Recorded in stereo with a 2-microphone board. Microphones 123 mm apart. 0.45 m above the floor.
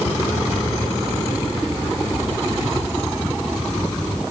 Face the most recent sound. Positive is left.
No sound to turn to.